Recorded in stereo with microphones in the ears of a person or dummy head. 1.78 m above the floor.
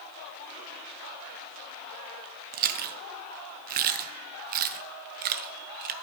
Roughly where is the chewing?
Right.